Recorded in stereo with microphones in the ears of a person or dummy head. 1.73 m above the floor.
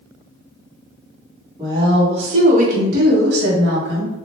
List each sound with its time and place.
1.6 s a woman speaking: 25° right (ahead or behind), 1.2 m; by 4.1 s 85° right, 1.3 m